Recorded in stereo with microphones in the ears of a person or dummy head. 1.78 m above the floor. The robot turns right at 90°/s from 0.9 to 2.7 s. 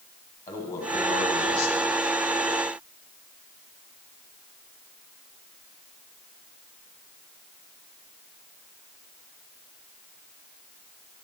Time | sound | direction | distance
0.5 | a man speaking | 20° left | 1.7 m